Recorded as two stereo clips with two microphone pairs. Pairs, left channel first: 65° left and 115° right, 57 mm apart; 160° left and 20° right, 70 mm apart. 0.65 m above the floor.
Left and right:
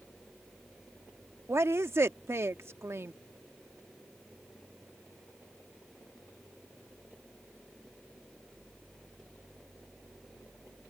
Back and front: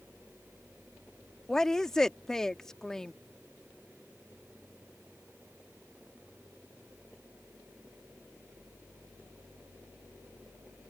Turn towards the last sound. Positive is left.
turn(degrees=-125)